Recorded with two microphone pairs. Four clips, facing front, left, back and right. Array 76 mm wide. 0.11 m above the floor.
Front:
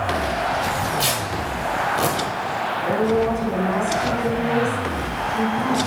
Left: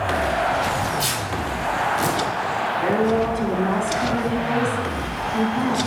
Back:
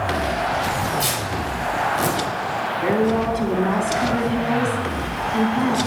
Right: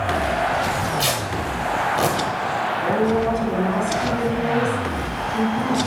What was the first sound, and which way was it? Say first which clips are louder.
Tearing paper: right 1 dB, even; 65° right.